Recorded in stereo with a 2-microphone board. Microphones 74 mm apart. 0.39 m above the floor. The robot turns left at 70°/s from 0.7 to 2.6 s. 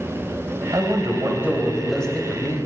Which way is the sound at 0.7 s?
100° right.